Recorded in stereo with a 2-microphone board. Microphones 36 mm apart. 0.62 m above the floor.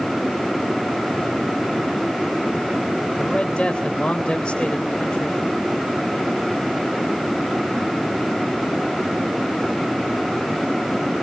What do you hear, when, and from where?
3.2 s a man speaking: 30° left (ahead or behind), 3.5 m